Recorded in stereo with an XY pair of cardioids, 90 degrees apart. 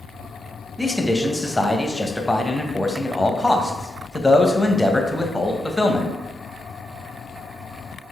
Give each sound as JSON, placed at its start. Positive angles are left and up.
{"t": 0.8, "sound": "a man speaking", "azimuth_deg": 15, "distance_m": 0.7}